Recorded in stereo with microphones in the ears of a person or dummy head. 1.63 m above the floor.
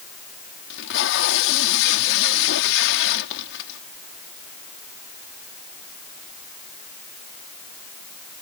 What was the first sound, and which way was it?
Tape being pulled, 70° left (ahead or behind).